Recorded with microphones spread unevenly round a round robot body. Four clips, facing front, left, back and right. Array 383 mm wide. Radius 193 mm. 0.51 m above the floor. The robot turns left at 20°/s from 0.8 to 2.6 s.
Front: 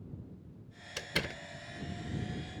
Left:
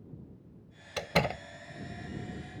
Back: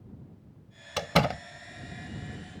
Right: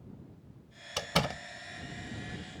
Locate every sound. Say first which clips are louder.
1.0 s a door slam: left 2 dB, back 13 dB; straight behind; by 1.4 s 170° left